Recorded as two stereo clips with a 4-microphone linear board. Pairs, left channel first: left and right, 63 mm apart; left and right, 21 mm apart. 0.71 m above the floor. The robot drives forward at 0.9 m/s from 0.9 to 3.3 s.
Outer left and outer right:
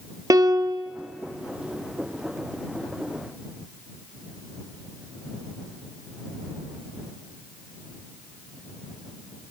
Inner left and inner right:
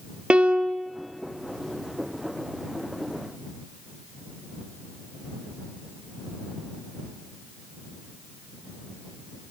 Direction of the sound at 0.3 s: 60° right (ahead or behind).